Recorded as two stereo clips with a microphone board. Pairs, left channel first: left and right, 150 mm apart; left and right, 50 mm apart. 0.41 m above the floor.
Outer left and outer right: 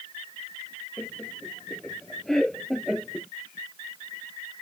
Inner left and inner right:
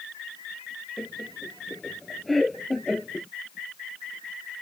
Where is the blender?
No blender in this recording.